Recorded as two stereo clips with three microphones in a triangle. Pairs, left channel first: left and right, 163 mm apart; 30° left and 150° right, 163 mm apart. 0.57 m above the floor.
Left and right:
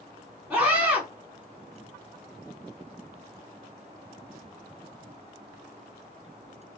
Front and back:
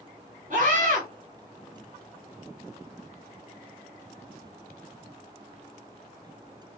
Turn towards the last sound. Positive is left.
turn(degrees=-165)